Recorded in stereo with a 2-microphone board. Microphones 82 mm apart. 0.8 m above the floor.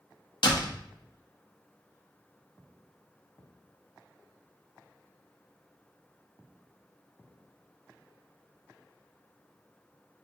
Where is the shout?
I don't hear a shout.